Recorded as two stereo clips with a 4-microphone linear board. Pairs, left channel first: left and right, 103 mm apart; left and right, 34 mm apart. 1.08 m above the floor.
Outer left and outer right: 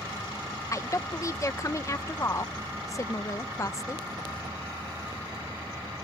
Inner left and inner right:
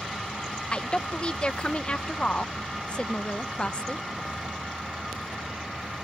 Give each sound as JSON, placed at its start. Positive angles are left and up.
{"t": 0.7, "sound": "a woman speaking", "side_deg": 30}